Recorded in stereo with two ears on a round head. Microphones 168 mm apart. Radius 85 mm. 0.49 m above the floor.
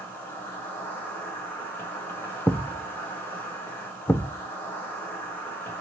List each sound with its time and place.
0.0 s an insect: 10° left (ahead or behind), 1.9 m
2.5 s a thud: 10° left (ahead or behind), 0.5 m